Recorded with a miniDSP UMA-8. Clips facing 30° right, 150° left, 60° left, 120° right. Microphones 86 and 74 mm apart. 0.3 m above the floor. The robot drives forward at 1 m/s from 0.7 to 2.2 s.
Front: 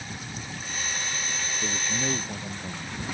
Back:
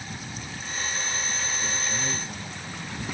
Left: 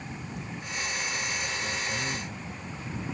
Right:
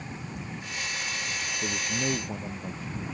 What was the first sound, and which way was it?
A man speaking, 90° right.